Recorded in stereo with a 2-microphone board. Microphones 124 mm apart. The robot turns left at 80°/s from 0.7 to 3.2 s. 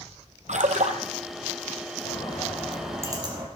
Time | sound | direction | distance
0.5 | a splash | 85° right | 1.1 m
2.0 | a bird | 55° left | 3.5 m